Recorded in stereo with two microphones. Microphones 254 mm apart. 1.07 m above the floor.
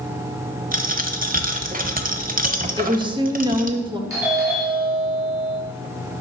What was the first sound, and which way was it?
A dropped coin, 35° right (ahead or behind).